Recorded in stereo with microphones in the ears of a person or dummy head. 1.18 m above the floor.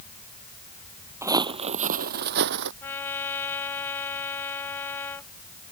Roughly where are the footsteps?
Centre.